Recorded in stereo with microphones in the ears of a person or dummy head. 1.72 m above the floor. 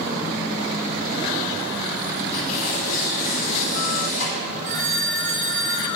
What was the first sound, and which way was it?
Tearing paper, 45° left (ahead or behind).